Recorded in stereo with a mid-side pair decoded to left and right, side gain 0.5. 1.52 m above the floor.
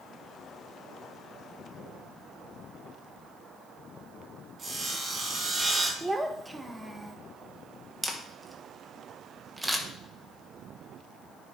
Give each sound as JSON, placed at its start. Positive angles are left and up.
{"t": 4.6, "sound": "sawing", "azimuth_deg": -35, "distance_m": 3.5}
{"t": 6.0, "sound": "a child speaking", "azimuth_deg": -10, "distance_m": 1.2}
{"t": 8.0, "sound": "a camera shutter", "azimuth_deg": -5, "distance_m": 1.9}